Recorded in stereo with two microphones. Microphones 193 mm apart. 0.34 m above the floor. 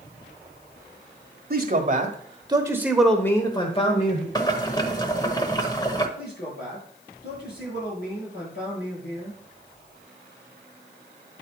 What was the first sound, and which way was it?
A man speaking, 50° right (ahead or behind).